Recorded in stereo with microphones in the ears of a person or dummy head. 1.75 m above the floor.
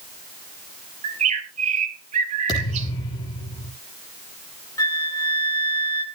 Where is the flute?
25° left (ahead or behind), 1.4 m.